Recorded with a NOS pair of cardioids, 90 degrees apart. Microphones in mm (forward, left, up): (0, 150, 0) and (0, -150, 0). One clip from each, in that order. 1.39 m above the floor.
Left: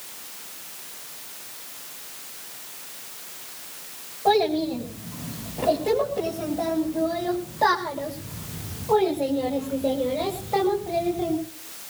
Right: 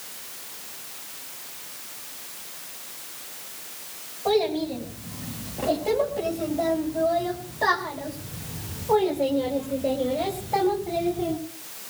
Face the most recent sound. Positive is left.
turn(degrees=5)